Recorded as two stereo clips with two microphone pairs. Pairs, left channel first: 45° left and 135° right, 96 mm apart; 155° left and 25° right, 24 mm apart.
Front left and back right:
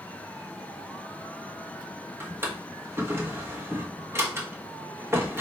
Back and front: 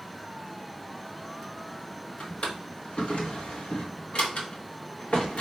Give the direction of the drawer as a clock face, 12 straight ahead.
7 o'clock.